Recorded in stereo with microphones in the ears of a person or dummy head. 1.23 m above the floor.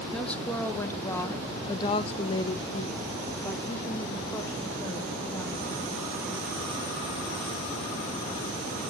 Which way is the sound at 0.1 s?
5° left (ahead or behind).